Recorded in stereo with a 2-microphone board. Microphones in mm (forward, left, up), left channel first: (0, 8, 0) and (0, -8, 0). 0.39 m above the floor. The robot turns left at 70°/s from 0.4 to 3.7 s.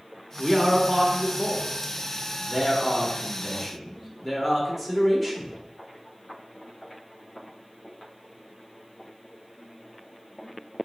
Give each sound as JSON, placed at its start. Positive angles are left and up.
{"t": 0.4, "sound": "a man speaking", "side_deg": 10, "distance_m": 0.8}